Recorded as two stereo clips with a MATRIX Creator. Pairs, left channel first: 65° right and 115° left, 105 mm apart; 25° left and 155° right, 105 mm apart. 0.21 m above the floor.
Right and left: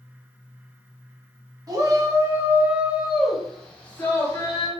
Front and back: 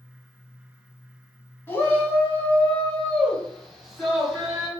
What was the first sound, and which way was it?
A shout, 80° left.